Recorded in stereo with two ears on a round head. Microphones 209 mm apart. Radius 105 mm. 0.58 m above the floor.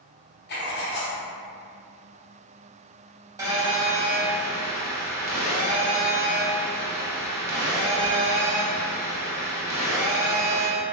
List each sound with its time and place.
0.5 s writing: 45° left (ahead or behind), 0.6 m
3.4 s a phone buzzing: 15° right (ahead or behind), 0.8 m